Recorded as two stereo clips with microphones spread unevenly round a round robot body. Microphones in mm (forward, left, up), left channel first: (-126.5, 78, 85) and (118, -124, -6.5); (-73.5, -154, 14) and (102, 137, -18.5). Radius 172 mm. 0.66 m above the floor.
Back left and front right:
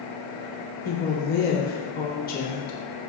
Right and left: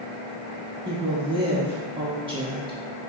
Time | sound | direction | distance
0.8 | a woman speaking | 80° left | 0.6 m